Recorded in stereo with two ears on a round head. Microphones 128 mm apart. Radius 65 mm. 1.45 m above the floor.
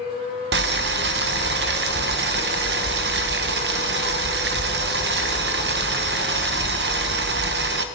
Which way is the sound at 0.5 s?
85° right.